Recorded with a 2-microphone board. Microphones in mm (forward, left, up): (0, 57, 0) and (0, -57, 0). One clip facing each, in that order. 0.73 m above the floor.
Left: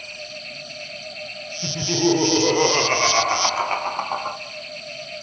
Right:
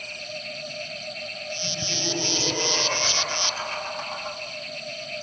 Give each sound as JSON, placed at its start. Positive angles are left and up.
{"t": 1.6, "sound": "laughter", "side_deg": 65, "distance_m": 3.0}